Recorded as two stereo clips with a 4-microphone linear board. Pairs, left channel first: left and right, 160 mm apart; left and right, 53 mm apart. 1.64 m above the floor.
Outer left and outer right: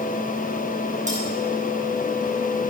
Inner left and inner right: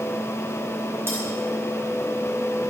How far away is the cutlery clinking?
About 8 m.